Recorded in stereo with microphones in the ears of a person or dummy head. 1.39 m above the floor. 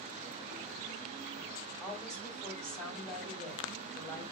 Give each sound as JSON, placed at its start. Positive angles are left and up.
{"t": 1.8, "sound": "a woman speaking", "side_deg": 5, "distance_m": 4.0}